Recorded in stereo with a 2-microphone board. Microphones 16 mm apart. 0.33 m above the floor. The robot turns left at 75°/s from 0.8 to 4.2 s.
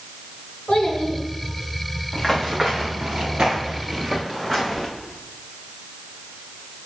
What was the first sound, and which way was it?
A child speaking, 65° left (ahead or behind).